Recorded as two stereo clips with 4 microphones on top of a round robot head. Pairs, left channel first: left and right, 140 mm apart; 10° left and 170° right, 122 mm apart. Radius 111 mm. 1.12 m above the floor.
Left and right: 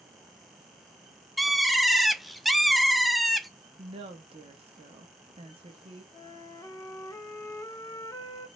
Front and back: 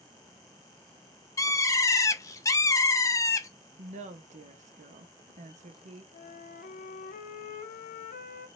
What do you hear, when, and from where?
1.4 s a bird: straight ahead, 0.6 m
3.8 s a woman speaking: 145° right, 0.9 m
6.1 s a flute: 20° left, 0.6 m